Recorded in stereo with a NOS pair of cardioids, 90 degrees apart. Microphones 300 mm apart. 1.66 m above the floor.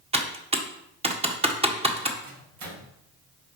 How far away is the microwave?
About 3 m.